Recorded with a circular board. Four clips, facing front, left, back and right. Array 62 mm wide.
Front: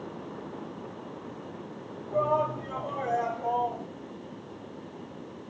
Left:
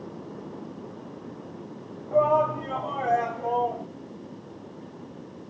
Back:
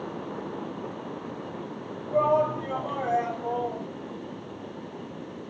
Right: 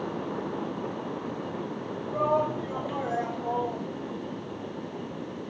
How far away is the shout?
About 2.5 m.